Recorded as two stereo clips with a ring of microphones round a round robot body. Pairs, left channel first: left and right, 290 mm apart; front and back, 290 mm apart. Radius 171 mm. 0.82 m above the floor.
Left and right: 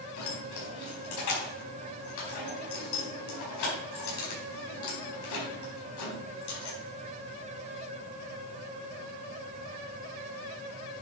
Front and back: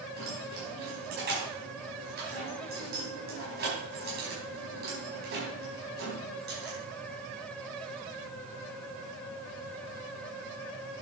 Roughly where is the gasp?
I don't hear a gasp.